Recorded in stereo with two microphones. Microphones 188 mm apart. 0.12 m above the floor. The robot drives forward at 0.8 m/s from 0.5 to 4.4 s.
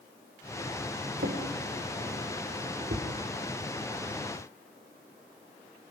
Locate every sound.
1.2 s a drawer: 65° right (ahead or behind), 6 m; by 3.1 s 55° right (ahead or behind), 7 m